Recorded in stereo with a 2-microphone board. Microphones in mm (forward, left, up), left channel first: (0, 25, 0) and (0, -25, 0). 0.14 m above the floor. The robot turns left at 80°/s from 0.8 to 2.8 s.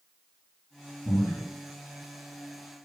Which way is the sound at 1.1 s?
50° left (ahead or behind).